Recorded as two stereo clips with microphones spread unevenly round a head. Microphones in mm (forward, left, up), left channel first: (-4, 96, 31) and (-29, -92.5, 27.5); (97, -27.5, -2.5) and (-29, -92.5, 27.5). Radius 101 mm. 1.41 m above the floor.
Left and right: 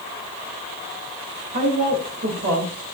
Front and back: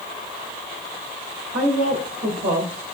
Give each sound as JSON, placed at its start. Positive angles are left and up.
{"t": 1.5, "sound": "a woman speaking", "azimuth_deg": -145, "distance_m": 2.5}